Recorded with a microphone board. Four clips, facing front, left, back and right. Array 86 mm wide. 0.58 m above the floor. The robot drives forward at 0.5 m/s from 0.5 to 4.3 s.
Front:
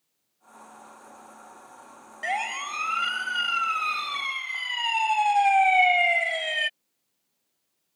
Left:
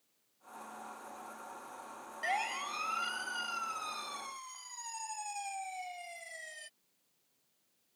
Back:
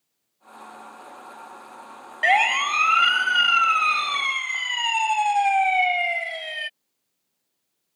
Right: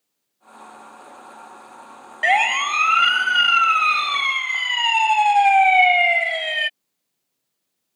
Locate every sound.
2.2 s a siren: 125° right; by 6.7 s 75° right